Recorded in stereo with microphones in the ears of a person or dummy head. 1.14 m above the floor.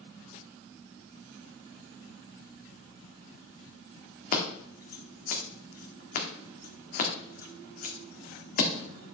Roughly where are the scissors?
Left.